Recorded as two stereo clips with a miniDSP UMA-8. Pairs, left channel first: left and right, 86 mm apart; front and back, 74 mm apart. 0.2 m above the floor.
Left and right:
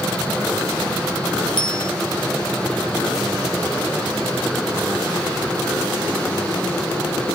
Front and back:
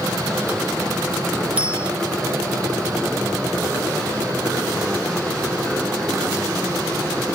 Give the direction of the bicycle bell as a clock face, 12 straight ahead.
8 o'clock.